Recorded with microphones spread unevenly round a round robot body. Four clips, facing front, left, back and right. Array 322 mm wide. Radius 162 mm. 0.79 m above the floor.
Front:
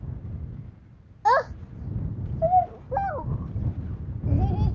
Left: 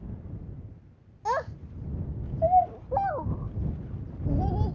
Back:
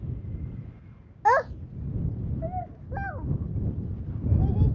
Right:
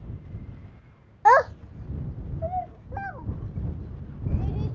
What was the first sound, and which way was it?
A child speaking, 85° right.